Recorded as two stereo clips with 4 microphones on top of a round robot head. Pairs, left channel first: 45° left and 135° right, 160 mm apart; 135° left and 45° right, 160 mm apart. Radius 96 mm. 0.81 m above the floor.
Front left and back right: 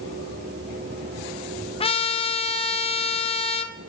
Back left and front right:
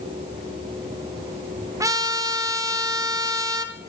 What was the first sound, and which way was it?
A trumpet, 15° left.